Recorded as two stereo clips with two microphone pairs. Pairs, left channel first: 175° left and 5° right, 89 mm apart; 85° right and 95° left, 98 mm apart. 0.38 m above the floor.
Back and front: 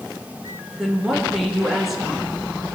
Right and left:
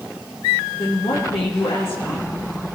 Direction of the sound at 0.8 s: 95° right.